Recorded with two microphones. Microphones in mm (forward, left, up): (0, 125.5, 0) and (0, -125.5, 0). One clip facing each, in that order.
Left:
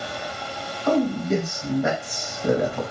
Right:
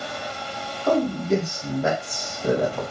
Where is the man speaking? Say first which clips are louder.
Even; centre (ahead or behind), 1.5 m.